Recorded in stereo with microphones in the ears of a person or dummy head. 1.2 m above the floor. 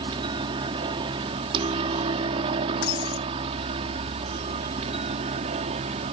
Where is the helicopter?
30° right (ahead or behind); by 6.1 s 40° right (ahead or behind).